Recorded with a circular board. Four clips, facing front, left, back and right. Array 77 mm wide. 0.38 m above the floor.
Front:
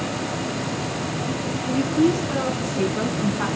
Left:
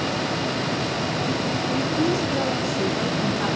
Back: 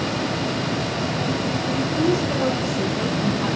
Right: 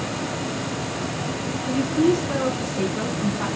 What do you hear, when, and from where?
1.7 s a woman speaking: 35° right, 4 m; by 3.5 s straight ahead, 3.5 m